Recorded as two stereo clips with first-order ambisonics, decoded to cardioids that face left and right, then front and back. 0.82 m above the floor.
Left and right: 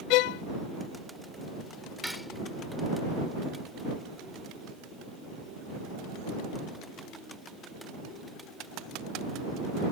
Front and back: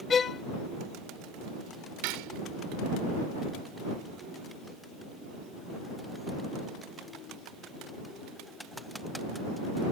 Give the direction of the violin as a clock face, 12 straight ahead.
10 o'clock.